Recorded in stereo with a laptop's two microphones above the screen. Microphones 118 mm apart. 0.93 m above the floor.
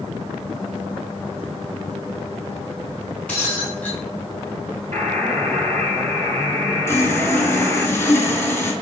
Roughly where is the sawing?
Left.